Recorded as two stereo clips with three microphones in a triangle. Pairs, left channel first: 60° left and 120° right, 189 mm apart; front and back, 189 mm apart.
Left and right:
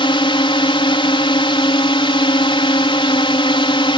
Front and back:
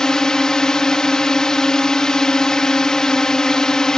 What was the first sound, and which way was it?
A drone, 85° left.